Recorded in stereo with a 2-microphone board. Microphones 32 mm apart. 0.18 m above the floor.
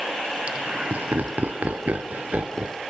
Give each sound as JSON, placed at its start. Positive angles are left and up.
{"t": 0.5, "sound": "laughter", "side_deg": -40, "distance_m": 1.9}